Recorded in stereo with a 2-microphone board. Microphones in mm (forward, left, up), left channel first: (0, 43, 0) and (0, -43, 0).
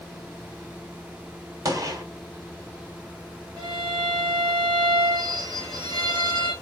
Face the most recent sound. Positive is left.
turn(degrees=-50)  # may be behind; listen again after turning